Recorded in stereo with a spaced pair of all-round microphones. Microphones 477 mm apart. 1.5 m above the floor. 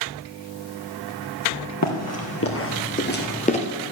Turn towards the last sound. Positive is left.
turn(degrees=15)  # may be behind; listen again after turning